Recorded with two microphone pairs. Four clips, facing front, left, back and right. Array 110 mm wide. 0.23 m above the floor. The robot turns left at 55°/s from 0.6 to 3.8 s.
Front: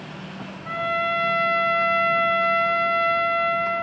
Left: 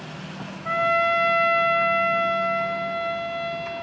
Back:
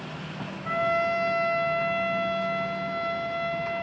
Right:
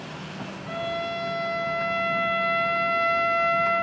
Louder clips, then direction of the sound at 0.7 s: Left 9 dB, even; 95° left.